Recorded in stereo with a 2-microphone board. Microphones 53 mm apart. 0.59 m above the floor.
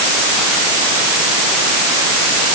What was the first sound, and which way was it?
Only background noise.